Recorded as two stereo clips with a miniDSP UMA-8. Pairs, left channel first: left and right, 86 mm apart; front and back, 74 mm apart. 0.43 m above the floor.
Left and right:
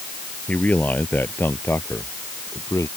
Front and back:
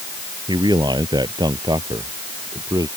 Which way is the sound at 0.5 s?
165° left.